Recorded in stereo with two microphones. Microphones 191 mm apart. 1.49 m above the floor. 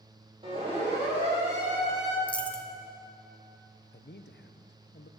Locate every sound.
0.4 s a siren: 30° right (ahead or behind), 7.5 m; by 2.2 s 35° right (ahead or behind), 7 m
2.3 s a dropped coin: 5° left (ahead or behind), 1.0 m
3.9 s a man speaking: 70° left (ahead or behind), 0.8 m